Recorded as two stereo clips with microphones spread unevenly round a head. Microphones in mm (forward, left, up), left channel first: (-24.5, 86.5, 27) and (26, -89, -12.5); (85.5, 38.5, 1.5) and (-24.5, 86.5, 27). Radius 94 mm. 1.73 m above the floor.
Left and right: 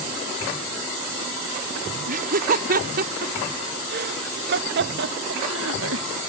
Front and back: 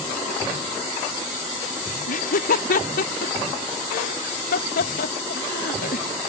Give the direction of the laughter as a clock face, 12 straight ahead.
1 o'clock.